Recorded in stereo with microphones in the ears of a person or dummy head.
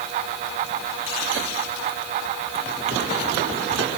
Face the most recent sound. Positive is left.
No sound to turn to.